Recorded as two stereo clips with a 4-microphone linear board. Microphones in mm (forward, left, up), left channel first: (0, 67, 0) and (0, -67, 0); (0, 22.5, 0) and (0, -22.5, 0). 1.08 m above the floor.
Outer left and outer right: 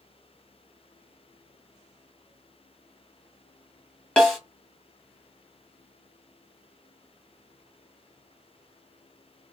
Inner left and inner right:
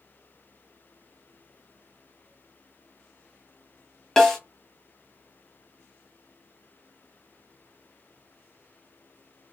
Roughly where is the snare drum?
Centre.